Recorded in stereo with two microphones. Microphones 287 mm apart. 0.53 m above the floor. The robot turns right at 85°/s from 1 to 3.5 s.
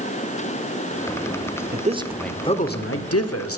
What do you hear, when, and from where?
1.7 s a man speaking: 40° right, 1.4 m; by 3.6 s 110° left, 1.4 m